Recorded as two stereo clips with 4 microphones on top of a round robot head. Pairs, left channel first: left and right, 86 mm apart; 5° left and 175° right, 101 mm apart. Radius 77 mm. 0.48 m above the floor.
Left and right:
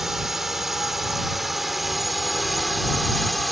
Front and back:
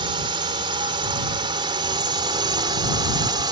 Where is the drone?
175° right; by 3.5 s straight behind.